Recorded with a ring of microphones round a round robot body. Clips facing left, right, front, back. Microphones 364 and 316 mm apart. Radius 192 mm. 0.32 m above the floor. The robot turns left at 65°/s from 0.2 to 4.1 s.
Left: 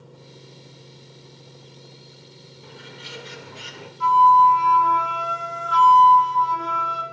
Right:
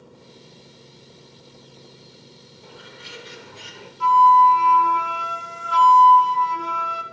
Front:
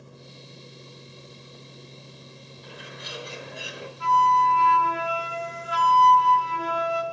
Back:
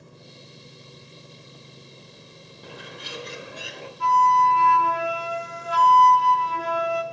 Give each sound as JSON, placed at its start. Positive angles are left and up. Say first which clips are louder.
{"t": 2.6, "sound": "a bird", "louder": "left 1 dB, back 3 dB", "azimuth_deg": 155, "distance_m": 0.6}
{"t": 4.0, "sound": "a flute", "louder": "right 1 dB, back 2 dB", "azimuth_deg": -135, "distance_m": 0.6}